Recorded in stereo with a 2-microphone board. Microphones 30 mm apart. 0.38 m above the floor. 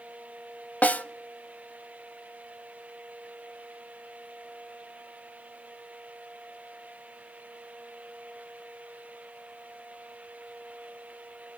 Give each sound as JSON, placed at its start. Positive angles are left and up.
{"t": 0.8, "sound": "a snare drum", "side_deg": 55, "distance_m": 0.7}